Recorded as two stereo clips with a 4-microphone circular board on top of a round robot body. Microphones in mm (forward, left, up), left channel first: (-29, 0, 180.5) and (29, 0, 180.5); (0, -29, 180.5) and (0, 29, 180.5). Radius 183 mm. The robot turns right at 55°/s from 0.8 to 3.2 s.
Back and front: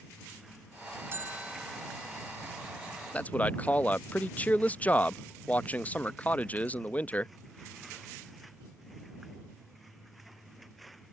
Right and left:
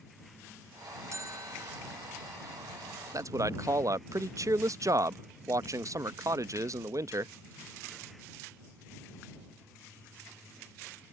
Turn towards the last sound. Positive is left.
turn(degrees=115)